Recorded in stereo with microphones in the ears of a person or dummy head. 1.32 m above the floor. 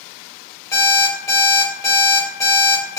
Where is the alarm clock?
15° left (ahead or behind), 1.0 m.